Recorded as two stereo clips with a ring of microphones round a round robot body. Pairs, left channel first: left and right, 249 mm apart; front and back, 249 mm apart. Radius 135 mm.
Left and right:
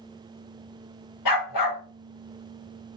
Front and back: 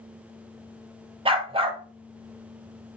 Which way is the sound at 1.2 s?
110° left.